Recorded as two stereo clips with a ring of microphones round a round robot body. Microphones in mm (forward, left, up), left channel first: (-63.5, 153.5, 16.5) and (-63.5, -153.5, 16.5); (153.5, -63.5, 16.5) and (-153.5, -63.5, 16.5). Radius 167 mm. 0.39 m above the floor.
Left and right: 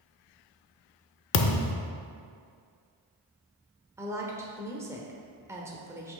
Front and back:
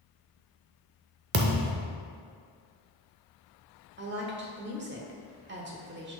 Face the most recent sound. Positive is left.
turn(degrees=-165)